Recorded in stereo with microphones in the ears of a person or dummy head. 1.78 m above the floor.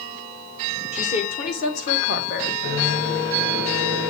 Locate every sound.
0.9 s a woman speaking: 40° left (ahead or behind), 1.2 m; by 2.5 s 70° left (ahead or behind), 1.7 m
2.6 s a microwave: 70° left (ahead or behind), 5 m